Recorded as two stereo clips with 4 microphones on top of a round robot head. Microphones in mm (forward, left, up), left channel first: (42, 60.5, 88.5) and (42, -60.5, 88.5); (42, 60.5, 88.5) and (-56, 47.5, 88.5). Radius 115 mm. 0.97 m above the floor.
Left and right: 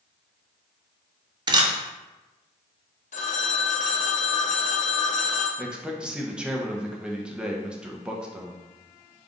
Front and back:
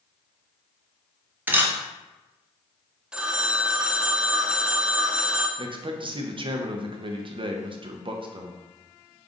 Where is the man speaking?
170° right, 0.7 m.